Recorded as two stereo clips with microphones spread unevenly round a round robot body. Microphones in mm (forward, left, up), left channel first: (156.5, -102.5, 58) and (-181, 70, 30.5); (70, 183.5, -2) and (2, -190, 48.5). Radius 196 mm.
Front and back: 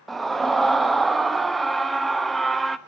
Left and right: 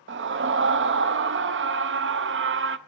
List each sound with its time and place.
0.1 s a scream: 125° right, 0.8 m